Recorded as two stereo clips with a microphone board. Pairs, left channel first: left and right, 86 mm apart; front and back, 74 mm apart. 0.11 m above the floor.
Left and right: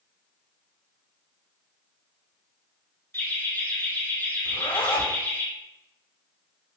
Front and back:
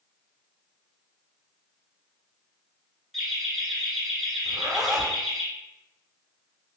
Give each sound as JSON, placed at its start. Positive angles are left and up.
{"t": 3.1, "sound": "laughter", "azimuth_deg": 80, "distance_m": 1.6}
{"t": 4.5, "sound": "a zipper", "azimuth_deg": 90, "distance_m": 1.2}